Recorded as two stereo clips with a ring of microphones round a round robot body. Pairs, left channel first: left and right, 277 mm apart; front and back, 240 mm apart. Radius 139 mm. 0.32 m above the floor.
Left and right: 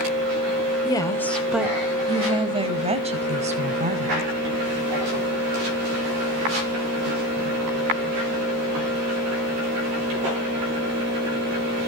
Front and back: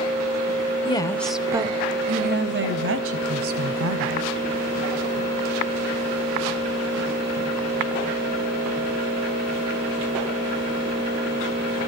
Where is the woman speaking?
35° left, 1.0 m; by 4.3 s 155° right, 2.5 m.